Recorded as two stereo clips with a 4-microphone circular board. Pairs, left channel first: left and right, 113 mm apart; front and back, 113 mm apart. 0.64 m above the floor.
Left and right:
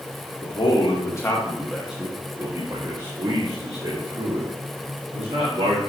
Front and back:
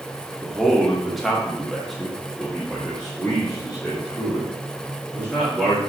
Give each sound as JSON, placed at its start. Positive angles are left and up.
{"t": 0.4, "sound": "a man speaking", "azimuth_deg": 85, "distance_m": 1.2}